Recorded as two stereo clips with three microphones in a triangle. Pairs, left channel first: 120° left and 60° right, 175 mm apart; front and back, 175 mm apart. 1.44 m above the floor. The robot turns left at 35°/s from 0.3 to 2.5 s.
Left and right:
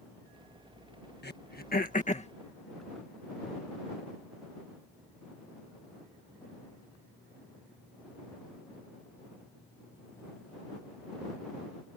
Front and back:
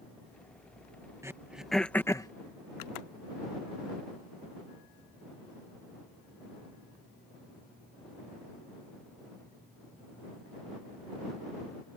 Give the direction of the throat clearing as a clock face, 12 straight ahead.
8 o'clock.